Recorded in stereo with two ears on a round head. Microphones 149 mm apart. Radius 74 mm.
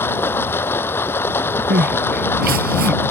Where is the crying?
60° right (ahead or behind).